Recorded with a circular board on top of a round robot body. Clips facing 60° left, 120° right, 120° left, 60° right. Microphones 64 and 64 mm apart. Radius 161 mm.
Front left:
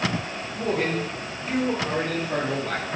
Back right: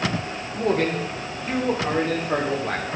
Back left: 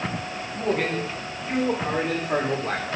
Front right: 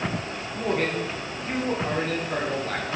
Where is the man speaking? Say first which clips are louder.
Back right 3 dB, back left 1 dB; 150° right, 3 m; by 3.0 s straight behind, 3 m.